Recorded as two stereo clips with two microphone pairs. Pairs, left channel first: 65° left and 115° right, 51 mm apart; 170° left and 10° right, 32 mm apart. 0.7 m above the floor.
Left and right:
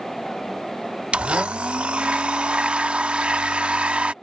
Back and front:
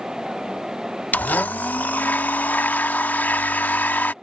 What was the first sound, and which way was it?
A blender, straight behind.